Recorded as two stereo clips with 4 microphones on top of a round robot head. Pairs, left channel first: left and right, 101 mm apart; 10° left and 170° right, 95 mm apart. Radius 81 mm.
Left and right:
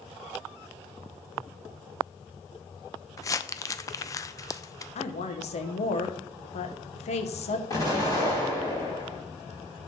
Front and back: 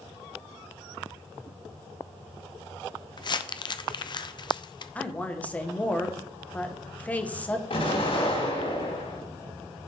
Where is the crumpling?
35° left, 0.7 m.